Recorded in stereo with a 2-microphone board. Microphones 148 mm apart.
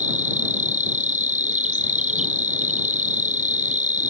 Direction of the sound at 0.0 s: 55° right (ahead or behind).